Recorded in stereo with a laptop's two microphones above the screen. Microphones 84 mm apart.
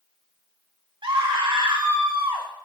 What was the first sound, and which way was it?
A scream, 70° right (ahead or behind).